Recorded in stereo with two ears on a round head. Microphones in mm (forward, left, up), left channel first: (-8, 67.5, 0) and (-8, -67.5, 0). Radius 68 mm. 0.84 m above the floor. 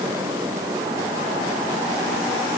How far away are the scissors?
I don't hear scissors.